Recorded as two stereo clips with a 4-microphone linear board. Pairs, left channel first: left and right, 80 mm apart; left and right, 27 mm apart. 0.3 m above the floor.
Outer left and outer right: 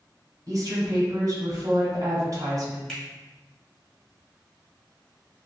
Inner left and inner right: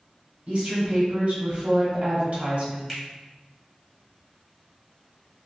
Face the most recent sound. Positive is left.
turn(degrees=5)  # may be behind; listen again after turning